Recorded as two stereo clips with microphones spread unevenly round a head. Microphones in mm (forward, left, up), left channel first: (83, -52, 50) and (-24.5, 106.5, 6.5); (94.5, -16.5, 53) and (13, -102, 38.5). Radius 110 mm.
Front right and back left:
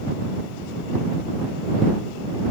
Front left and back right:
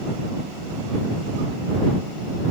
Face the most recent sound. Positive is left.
No sound to turn to.